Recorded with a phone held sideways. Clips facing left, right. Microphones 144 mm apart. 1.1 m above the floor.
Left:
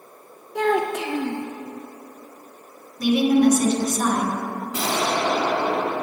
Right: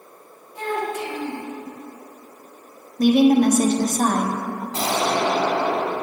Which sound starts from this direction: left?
A child speaking, at 0.6 s.